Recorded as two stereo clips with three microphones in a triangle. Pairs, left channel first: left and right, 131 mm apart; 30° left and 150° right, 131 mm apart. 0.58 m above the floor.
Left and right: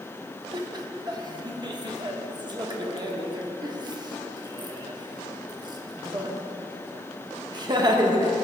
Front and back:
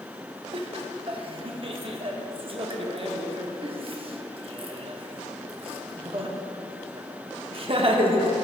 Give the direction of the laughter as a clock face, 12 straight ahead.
4 o'clock.